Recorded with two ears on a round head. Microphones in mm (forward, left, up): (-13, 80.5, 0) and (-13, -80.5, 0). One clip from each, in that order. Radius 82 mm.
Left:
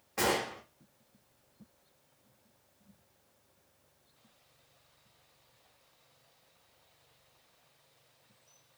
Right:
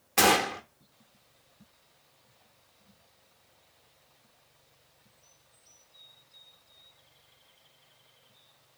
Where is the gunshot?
70° right (ahead or behind), 0.5 m.